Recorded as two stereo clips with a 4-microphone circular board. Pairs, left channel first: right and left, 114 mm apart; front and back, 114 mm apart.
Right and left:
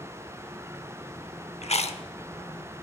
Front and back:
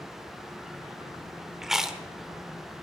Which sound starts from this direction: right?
Chewing, at 1.6 s.